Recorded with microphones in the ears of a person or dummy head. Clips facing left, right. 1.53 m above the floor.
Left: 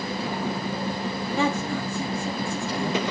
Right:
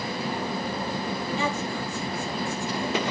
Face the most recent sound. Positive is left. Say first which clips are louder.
# left 3 dB
turn(degrees=55)  # may be behind; listen again after turning